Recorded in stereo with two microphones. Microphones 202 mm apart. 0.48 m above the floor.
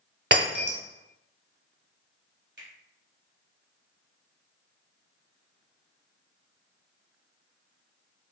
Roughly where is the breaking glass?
Right.